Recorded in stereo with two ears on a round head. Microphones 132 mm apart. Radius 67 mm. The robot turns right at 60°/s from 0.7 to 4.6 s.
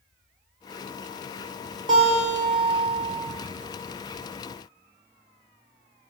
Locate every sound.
1.9 s a guitar: 85° right, 1.4 m; by 3.1 s 10° right, 1.4 m